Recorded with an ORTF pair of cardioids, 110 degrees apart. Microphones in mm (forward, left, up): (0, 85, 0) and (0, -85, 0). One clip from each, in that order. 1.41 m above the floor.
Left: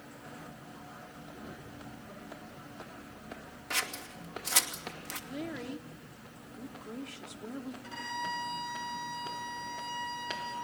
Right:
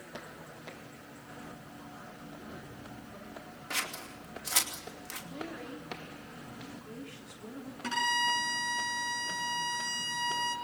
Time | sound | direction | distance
3.7 | scissors | 15° left | 2.5 m
5.3 | a woman speaking | 30° left | 3 m
7.8 | a violin | 65° right | 5 m